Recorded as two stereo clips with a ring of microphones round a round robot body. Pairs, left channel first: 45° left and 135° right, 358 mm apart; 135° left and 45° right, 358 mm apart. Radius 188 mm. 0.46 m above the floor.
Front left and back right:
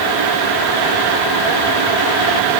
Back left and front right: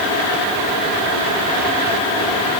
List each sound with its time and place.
Only background noise.